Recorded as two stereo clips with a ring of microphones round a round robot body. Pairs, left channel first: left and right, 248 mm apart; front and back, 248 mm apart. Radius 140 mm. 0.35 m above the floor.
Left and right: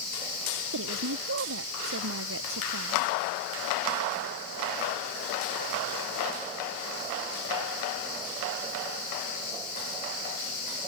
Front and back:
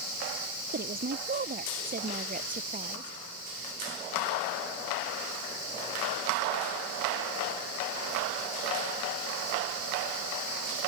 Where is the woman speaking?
125° right; by 3.2 s 120° right.